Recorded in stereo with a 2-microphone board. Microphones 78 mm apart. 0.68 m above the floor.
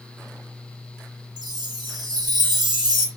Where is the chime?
65° right (ahead or behind), 1.2 m.